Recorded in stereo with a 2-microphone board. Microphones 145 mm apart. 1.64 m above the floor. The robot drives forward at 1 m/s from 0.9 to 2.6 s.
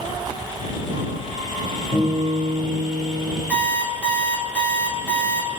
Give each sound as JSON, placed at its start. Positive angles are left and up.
{"t": 1.9, "sound": "a guitar", "side_deg": 50, "distance_m": 1.9}
{"t": 3.5, "sound": "an alarm clock", "side_deg": 10, "distance_m": 2.0}